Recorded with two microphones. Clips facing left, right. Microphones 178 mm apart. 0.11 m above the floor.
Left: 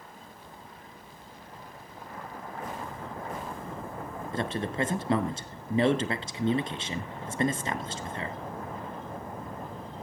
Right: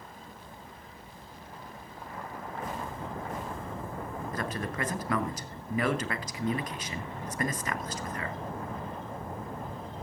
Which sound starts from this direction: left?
A man speaking, at 4.3 s.